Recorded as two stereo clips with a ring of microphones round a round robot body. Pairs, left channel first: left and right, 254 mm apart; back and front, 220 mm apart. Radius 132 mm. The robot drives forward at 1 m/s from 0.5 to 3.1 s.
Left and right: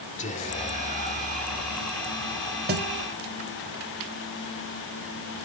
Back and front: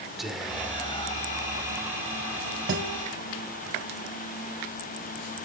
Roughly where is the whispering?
Left.